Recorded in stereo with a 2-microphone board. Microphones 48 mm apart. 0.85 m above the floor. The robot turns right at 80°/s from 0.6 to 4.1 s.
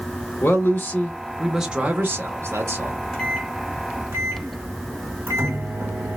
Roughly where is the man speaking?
Left.